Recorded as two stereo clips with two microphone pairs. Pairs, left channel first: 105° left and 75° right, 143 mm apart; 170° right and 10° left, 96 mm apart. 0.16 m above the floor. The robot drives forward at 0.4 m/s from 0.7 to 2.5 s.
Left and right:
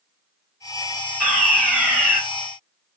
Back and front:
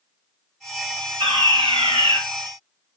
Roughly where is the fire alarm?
Ahead.